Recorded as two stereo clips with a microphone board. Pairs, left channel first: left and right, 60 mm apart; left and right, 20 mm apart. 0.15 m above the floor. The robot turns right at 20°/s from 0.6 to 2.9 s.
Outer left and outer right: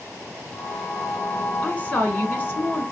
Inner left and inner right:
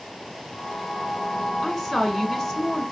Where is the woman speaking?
20° left (ahead or behind), 1.5 m; by 2.8 s 35° left (ahead or behind), 1.5 m.